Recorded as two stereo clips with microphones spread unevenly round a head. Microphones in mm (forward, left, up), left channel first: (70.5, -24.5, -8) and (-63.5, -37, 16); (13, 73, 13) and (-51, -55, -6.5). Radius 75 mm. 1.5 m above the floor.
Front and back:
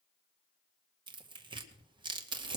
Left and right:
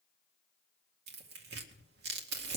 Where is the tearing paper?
115° right, 2 m.